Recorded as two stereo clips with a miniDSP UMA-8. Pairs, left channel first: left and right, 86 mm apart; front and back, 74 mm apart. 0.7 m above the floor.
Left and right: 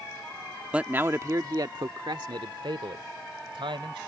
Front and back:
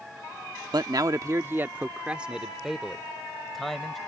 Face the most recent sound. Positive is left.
turn(degrees=-85)